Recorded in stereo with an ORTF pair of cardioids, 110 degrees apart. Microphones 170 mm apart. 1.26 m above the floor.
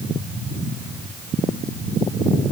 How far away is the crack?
I don't hear a crack.